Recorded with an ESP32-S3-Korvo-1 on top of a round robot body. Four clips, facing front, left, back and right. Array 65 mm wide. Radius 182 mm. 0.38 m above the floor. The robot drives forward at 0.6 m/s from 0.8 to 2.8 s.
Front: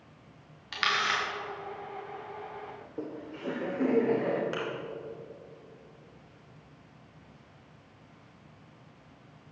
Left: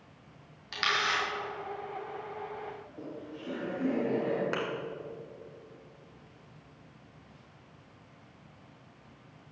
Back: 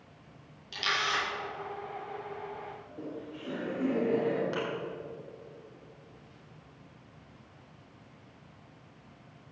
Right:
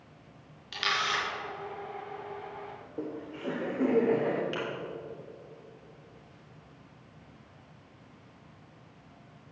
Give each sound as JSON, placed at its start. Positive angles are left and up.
{"t": 0.7, "sound": "a camera shutter", "azimuth_deg": 15, "distance_m": 4.5}
{"t": 2.8, "sound": "laughter", "azimuth_deg": -45, "distance_m": 1.9}
{"t": 4.5, "sound": "a thud", "azimuth_deg": 80, "distance_m": 3.0}